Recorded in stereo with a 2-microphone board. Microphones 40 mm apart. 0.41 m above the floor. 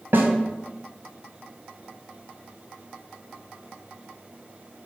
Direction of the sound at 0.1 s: 70° right (ahead or behind).